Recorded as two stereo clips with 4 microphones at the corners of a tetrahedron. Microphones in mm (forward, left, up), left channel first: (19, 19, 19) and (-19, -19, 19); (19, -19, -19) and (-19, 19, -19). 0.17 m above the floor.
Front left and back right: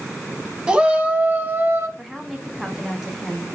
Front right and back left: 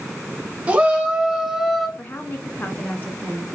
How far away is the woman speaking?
About 1.9 m.